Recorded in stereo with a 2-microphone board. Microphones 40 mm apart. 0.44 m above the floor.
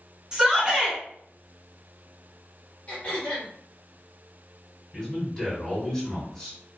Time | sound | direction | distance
0.3 | a shout | 20° right (ahead or behind) | 1.4 m
2.9 | throat clearing | 35° left (ahead or behind) | 1.4 m
4.9 | a man speaking | 15° left (ahead or behind) | 1.4 m